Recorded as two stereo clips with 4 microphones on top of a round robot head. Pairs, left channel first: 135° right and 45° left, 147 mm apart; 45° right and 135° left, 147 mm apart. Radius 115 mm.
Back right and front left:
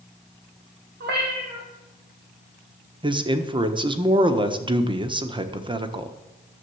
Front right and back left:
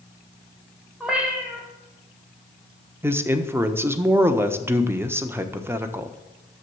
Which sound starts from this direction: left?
A man speaking, at 3.0 s.